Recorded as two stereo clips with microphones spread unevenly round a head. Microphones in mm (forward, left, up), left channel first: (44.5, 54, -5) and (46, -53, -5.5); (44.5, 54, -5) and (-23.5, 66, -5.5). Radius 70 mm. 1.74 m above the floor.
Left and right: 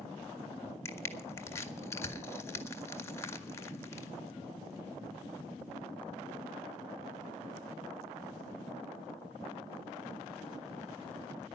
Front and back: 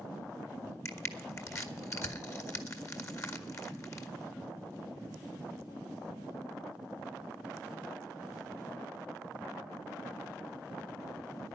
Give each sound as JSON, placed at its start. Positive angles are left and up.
{"t": 0.8, "sound": "crushing", "azimuth_deg": 30, "distance_m": 1.8}